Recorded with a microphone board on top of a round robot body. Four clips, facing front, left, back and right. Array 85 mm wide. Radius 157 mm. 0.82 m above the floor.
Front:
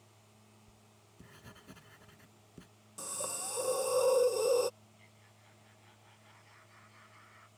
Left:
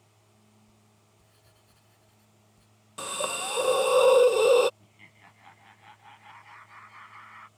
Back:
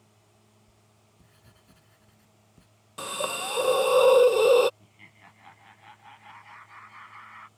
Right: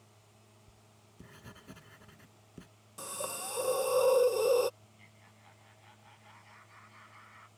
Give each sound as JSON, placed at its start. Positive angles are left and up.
{"t": 0.7, "sound": "writing", "azimuth_deg": -60}
{"t": 3.0, "sound": "a hiss", "azimuth_deg": 140}
{"t": 4.8, "sound": "laughter", "azimuth_deg": 150}